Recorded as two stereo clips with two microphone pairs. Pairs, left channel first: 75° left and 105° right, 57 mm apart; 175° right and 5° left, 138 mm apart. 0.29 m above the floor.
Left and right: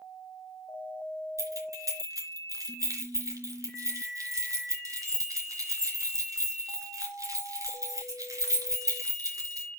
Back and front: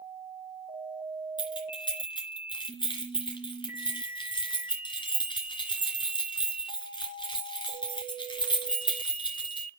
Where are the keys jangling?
120° right, 3 m.